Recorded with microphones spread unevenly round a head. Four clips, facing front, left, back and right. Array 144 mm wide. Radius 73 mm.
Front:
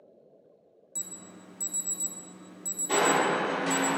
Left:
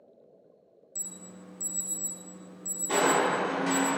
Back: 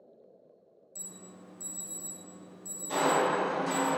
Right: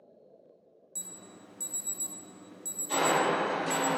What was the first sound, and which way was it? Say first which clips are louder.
An alarm: left 2 dB, front 2 dB; 5° right.